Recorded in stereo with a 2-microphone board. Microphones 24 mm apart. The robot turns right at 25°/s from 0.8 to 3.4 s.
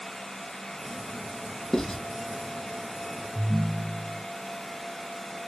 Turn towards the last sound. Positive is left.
turn(degrees=-80)